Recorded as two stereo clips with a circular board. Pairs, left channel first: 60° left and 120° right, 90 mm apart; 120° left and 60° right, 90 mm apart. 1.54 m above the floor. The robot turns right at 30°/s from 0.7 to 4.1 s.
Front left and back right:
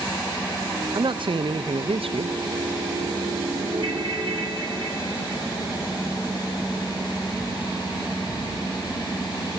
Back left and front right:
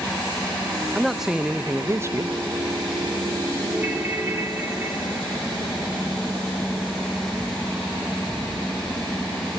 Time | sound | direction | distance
0.9 | a man speaking | 155° right | 0.6 m
3.7 | a ringtone | 135° right | 3 m